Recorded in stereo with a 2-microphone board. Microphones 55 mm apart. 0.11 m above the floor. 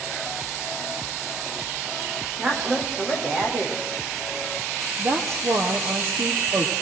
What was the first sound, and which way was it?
A woman speaking, 25° right (ahead or behind).